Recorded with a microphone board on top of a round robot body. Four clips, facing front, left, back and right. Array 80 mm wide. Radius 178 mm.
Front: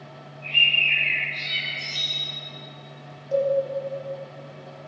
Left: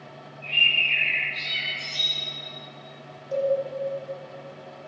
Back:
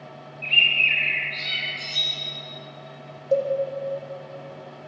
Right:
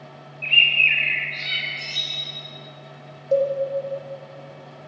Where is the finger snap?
No finger snap in this recording.